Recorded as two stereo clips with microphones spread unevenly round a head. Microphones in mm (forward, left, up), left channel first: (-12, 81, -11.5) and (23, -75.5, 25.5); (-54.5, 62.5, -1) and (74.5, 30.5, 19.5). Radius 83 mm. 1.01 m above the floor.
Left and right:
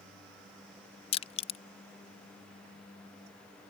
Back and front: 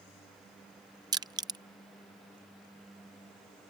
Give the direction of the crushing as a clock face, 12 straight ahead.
10 o'clock.